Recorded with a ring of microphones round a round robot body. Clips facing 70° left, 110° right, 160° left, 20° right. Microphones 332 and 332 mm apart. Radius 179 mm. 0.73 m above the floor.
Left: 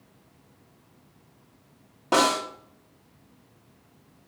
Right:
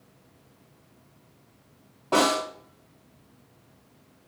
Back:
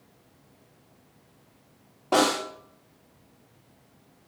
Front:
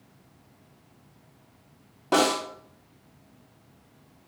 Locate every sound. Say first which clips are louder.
2.1 s a snare drum: right 1 dB, even; 30° left, 1.6 m